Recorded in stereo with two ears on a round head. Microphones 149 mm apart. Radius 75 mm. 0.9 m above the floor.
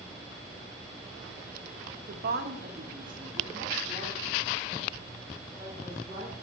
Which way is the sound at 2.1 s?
50° right (ahead or behind).